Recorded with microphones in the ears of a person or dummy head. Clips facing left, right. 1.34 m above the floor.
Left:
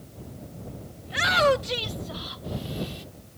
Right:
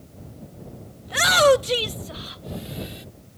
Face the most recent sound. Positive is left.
turn(degrees=-20)  # may be behind; listen again after turning